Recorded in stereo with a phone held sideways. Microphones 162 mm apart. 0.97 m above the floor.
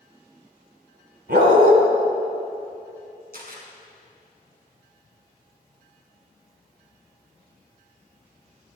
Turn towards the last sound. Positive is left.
turn(degrees=-65)  # may be behind; listen again after turning